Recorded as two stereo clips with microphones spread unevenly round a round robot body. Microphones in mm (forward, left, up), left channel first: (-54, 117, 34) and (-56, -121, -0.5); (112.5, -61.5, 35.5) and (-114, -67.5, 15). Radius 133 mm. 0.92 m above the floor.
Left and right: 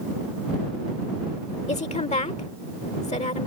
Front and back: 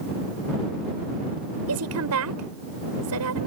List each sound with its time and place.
1.7 s a woman speaking: 150° left